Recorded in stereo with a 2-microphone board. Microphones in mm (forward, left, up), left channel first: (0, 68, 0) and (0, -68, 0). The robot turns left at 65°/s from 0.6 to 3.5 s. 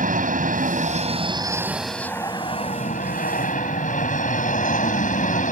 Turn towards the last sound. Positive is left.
turn(degrees=75)